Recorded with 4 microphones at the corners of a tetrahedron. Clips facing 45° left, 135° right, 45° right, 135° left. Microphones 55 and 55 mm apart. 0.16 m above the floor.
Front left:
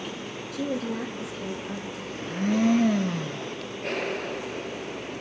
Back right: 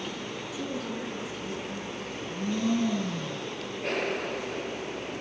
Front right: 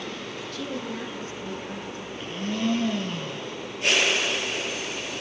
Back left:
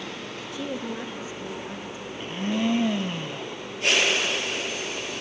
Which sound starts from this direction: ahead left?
A woman speaking, at 0.5 s.